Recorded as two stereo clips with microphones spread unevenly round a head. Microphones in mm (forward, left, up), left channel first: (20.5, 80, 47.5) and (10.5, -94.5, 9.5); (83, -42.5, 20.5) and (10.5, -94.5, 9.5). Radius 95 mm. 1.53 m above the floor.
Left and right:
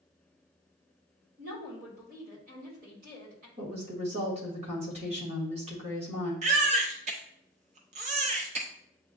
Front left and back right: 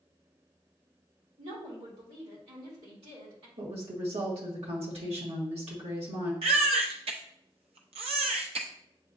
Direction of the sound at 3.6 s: 155° right.